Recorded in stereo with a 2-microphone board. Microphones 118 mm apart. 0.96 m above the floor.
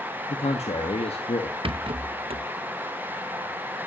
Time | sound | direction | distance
0.3 | a man speaking | 70° left (ahead or behind) | 1.3 m
1.6 | a rattle | 55° right (ahead or behind) | 0.6 m